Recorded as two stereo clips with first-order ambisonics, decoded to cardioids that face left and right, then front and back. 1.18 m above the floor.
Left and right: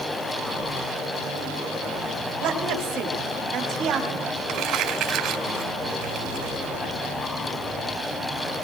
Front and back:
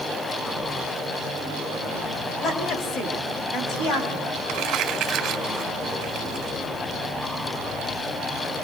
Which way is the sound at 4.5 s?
130° right.